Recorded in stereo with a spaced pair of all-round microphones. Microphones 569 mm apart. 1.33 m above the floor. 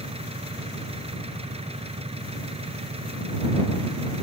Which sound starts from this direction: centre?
An engine running, at 0.0 s.